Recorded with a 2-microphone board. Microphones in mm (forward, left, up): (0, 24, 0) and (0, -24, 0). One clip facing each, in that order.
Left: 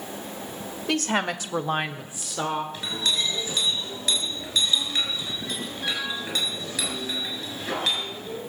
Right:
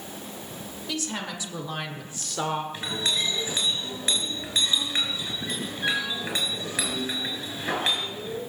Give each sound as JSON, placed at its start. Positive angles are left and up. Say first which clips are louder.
{"t": 0.9, "sound": "a woman speaking", "louder": "left 8 dB", "side_deg": 60, "distance_m": 1.5}
{"t": 2.7, "sound": "a clink", "louder": "left 1 dB", "side_deg": -35, "distance_m": 6.5}